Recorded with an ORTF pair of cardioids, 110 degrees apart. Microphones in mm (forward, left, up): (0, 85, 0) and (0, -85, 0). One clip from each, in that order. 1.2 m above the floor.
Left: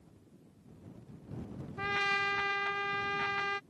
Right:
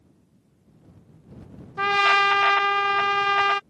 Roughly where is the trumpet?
Ahead right.